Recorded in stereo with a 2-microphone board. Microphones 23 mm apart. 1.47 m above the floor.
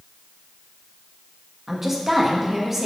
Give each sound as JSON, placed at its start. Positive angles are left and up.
{"t": 1.7, "sound": "a woman speaking", "side_deg": -15, "distance_m": 1.3}